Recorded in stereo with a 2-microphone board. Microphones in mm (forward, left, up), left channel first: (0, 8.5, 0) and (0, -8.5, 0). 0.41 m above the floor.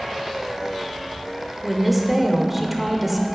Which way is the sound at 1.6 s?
5° right (ahead or behind).